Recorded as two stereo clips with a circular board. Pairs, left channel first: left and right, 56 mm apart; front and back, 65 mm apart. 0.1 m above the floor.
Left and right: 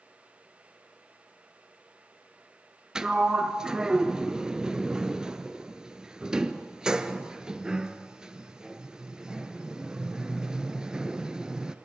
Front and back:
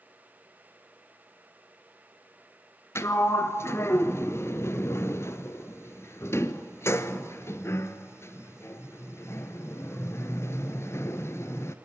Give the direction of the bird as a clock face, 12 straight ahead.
I don't hear a bird.